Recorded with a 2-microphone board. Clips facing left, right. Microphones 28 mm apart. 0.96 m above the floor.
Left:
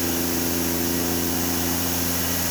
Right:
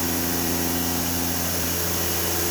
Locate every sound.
Only background noise.